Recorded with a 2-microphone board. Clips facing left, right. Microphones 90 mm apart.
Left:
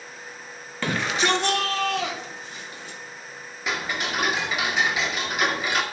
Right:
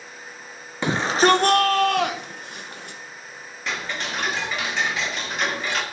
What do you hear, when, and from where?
0.8 s a shout: 20° right (ahead or behind), 0.5 m; by 3.0 s 60° right (ahead or behind), 1.4 m
3.7 s ticking: 5° left (ahead or behind), 1.5 m